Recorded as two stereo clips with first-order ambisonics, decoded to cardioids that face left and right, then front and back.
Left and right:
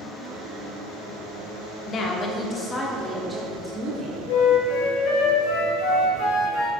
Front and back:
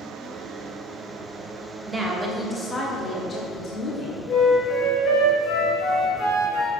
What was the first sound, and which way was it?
A woman speaking, 110° left.